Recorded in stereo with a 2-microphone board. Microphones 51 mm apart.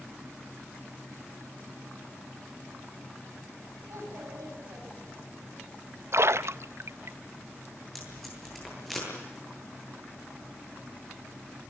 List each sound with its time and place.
3.9 s a child speaking: 85° right, 8 m
6.1 s a splash: 60° right (ahead or behind), 0.5 m
8.0 s tape being pulled: centre (ahead or behind), 9.5 m